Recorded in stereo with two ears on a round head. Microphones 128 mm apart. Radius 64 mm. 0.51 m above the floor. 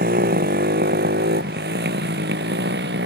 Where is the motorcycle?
70° right (ahead or behind); by 3.1 s 85° right.